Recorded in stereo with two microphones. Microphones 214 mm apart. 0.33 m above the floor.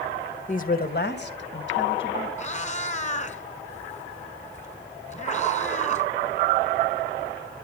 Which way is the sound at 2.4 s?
35° left (ahead or behind).